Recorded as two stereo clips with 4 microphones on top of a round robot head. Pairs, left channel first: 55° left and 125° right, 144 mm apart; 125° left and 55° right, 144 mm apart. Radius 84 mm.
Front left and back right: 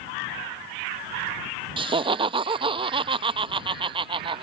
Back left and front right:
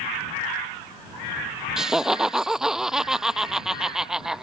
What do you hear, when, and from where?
1.8 s laughter: 140° right